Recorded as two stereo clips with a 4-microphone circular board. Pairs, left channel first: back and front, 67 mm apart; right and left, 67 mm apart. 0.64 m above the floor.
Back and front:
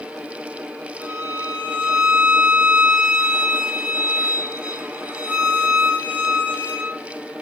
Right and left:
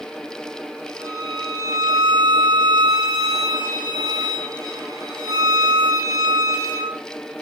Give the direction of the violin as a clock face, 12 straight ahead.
10 o'clock.